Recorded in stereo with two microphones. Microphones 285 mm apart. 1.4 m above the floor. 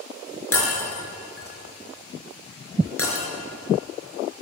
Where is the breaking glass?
50° left (ahead or behind), 4.5 m.